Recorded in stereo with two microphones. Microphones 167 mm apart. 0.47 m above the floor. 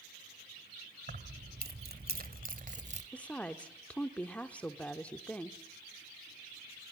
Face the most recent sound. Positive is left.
turn(degrees=10)  # may be behind; listen again after turning